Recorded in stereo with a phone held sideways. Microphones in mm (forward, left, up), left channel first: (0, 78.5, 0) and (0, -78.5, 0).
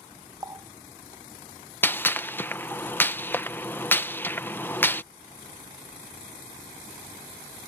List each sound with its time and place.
0.4 s a running tap: 25° right (ahead or behind)
1.8 s a gunshot: 15° left (ahead or behind)